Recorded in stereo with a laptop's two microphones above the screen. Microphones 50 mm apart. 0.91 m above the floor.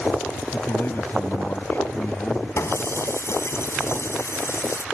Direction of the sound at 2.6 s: 65° left (ahead or behind).